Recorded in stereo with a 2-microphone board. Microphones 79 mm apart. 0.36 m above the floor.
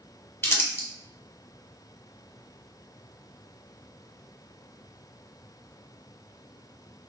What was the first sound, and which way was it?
Crumpling, 30° left (ahead or behind).